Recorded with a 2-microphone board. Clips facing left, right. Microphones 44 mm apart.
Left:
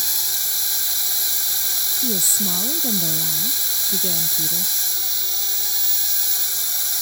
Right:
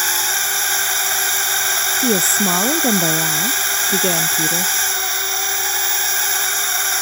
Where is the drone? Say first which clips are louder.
Right 10 dB; 55° right (ahead or behind).